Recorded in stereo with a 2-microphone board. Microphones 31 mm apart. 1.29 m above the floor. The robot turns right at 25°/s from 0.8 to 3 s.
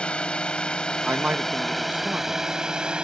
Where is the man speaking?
110° right; by 2.5 s 75° right.